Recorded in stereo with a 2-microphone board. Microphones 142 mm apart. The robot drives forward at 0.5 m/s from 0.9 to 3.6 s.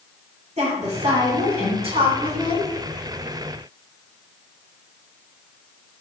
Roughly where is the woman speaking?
Right.